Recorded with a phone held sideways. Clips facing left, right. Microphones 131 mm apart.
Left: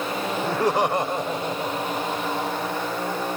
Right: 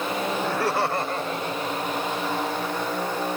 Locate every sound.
0.4 s laughter: 20° left (ahead or behind); by 2.8 s 15° left (ahead or behind)